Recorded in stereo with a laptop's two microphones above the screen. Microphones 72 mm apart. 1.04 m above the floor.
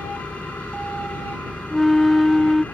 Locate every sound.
0.0 s an engine running: 20° left (ahead or behind)
1.7 s a flute: centre (ahead or behind)